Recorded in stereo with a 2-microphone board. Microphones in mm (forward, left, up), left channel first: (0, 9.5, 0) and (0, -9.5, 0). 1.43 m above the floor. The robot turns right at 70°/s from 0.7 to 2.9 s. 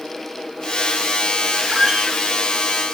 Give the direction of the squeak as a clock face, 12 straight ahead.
5 o'clock.